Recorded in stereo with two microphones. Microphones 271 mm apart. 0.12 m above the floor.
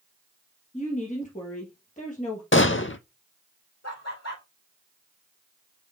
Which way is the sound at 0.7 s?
25° left (ahead or behind).